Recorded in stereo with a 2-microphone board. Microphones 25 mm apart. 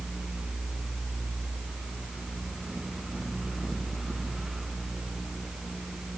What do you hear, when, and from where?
Only background noise.